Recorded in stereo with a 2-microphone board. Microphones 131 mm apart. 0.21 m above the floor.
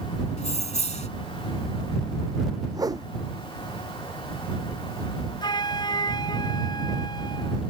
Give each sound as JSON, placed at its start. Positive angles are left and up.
{"t": 0.4, "sound": "keys jangling", "side_deg": 60}
{"t": 2.7, "sound": "a whoosh", "side_deg": -30}
{"t": 5.4, "sound": "a flute", "side_deg": 35}